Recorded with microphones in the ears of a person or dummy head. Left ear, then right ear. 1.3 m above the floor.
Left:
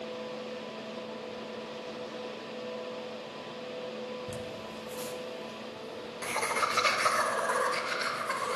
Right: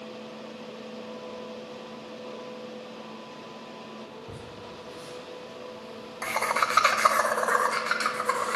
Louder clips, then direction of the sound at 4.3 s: Left 2 dB; 65° left (ahead or behind).